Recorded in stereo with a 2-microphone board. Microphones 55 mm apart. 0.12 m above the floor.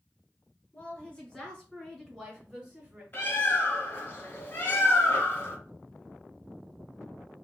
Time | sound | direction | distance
0.7 | a woman speaking | 25° left (ahead or behind) | 1.7 m
3.1 | a bird | 35° left (ahead or behind) | 1.7 m